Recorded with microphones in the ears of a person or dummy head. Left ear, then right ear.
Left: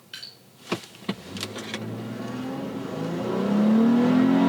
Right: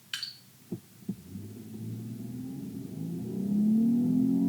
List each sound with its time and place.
0.1 s dripping: 25° right (ahead or behind), 1.1 m